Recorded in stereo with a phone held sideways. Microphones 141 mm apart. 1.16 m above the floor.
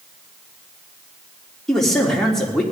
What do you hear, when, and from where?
1.7 s a man speaking: 5° left (ahead or behind), 3.5 m